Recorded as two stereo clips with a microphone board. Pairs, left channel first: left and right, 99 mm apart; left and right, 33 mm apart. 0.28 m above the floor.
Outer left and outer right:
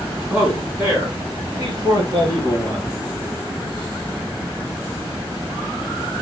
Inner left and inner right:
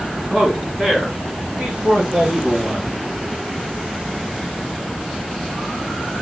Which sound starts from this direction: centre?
A man speaking, at 0.3 s.